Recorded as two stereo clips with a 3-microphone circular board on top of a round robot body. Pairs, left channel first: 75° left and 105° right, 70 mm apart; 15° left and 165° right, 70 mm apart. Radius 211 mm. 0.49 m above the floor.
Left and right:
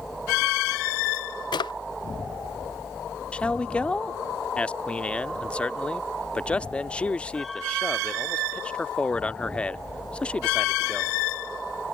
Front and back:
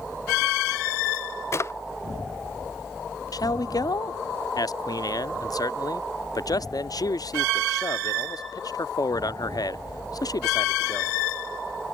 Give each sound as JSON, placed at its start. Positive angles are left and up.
{"t": 1.5, "sound": "a drawer", "azimuth_deg": 65}
{"t": 3.3, "sound": "a man speaking", "azimuth_deg": 0}